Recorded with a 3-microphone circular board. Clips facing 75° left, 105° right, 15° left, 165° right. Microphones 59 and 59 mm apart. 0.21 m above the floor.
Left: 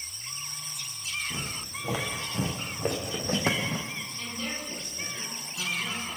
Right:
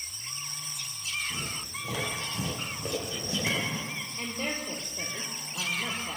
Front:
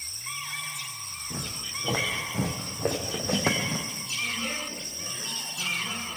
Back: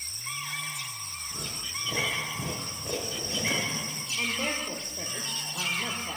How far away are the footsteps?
About 6 m.